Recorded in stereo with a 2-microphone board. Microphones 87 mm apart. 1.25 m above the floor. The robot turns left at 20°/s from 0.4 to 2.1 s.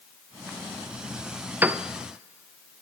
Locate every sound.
1.6 s a piano: 20° right (ahead or behind), 0.5 m; by 1.8 s 25° right (ahead or behind), 0.5 m